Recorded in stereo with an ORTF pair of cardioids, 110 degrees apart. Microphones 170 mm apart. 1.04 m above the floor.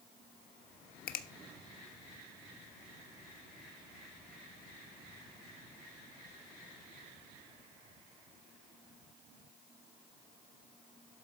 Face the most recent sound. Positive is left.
turn(degrees=60)